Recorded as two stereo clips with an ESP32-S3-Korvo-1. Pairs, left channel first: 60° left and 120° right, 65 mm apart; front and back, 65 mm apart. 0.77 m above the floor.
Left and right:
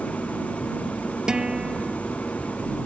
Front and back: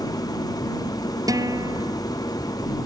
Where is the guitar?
160° left.